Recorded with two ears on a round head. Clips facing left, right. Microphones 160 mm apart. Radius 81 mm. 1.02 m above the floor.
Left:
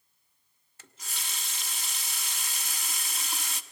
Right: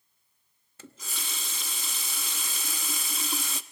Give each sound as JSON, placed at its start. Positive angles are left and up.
{"t": 0.8, "sound": "a running tap", "side_deg": -75, "distance_m": 0.8}